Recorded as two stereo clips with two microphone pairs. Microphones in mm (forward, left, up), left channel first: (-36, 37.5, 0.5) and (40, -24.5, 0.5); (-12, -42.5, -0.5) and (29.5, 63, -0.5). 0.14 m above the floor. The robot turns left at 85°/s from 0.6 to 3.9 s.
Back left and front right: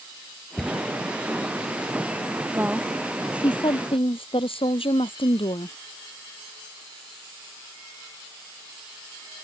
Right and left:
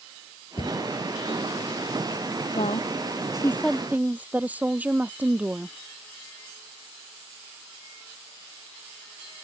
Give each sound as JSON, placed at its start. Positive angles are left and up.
{"t": 0.6, "sound": "a cupboard door", "azimuth_deg": -140}
{"t": 2.5, "sound": "a woman speaking", "azimuth_deg": -100}